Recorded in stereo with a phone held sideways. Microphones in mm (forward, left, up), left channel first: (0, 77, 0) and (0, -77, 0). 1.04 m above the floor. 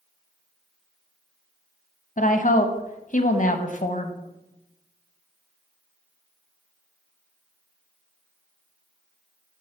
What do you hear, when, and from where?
2.2 s a woman speaking: 60° left (ahead or behind), 0.8 m